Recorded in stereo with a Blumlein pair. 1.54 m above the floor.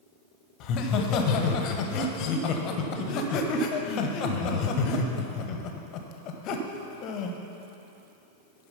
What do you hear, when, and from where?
0.6 s laughter: 35° left, 1.2 m